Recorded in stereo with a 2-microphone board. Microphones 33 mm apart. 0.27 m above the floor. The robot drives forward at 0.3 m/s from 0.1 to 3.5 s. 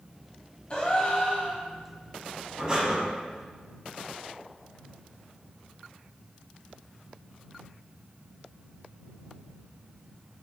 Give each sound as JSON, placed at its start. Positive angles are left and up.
{"t": 0.7, "sound": "a gasp", "side_deg": 35, "distance_m": 0.9}
{"t": 2.6, "sound": "breathing", "side_deg": -25, "distance_m": 1.0}